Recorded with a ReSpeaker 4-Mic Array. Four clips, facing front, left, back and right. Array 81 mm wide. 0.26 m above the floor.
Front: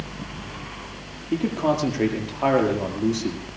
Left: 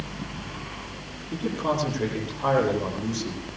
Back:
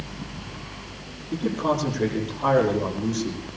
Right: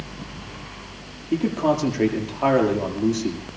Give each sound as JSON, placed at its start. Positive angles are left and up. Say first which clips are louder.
{"t": 1.3, "sound": "a man speaking", "louder": "right 6 dB, front 2 dB", "azimuth_deg": -50, "distance_m": 7.0}